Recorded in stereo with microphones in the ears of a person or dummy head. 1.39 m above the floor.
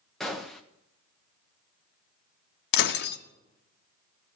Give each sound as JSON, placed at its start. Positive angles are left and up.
{"t": 0.2, "sound": "a gunshot", "side_deg": -5, "distance_m": 1.3}
{"t": 2.7, "sound": "breaking glass", "side_deg": 65, "distance_m": 0.9}